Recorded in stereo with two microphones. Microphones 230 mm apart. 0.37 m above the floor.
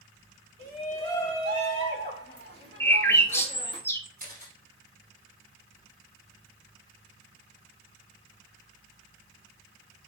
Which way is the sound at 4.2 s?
40° right (ahead or behind).